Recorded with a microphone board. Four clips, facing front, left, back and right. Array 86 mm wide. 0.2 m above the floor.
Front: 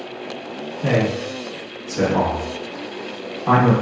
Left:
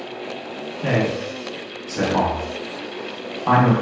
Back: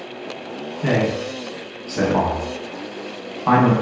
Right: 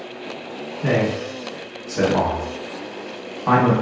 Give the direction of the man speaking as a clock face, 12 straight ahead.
6 o'clock.